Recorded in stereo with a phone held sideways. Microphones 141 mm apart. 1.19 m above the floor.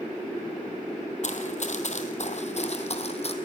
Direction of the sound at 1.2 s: 60° left (ahead or behind).